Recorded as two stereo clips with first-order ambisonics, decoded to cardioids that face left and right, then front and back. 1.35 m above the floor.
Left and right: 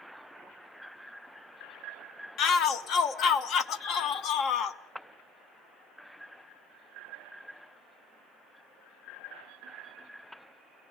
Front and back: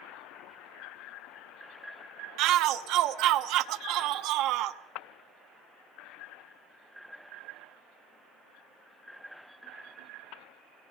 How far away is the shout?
About 1.0 m.